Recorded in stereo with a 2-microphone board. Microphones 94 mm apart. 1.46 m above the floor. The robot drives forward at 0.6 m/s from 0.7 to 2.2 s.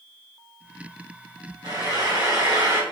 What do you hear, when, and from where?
1.6 s frying: 45° right (ahead or behind), 3.5 m; by 2.8 s 40° right (ahead or behind), 3.5 m